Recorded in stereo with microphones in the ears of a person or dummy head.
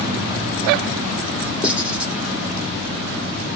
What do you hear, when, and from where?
1.6 s writing: 5° right (ahead or behind), 3 m